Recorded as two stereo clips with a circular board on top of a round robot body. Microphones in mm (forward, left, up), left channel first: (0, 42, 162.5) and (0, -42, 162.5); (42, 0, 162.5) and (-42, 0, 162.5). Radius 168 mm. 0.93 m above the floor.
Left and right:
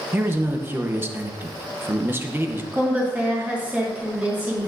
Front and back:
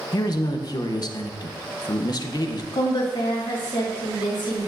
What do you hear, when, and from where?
0.1 s a man speaking: 30° right, 0.9 m
2.7 s a woman speaking: 20° right, 3 m